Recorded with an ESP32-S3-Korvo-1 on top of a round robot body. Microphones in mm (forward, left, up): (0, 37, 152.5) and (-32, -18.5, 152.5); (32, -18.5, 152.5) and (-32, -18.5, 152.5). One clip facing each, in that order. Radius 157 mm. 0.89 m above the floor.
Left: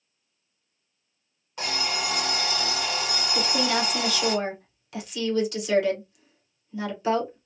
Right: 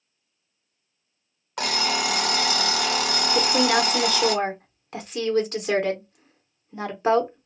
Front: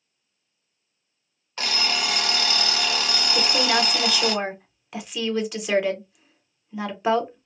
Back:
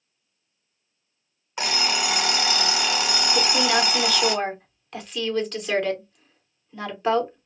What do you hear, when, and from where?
1.6 s an alarm clock: 105° right, 0.7 m
3.4 s a woman speaking: 80° right, 1.1 m